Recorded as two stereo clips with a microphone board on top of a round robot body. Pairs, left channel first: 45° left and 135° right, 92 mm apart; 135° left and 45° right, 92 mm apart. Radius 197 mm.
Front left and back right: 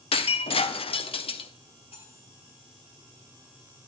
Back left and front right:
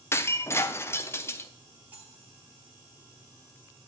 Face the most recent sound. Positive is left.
turn(degrees=25)